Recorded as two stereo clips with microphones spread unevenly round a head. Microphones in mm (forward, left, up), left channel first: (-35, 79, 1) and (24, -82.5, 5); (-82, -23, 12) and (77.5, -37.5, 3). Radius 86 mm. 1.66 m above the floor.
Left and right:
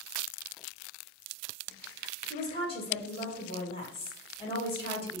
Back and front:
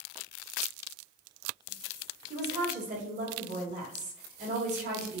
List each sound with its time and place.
2.3 s a woman speaking: 50° left, 1.5 m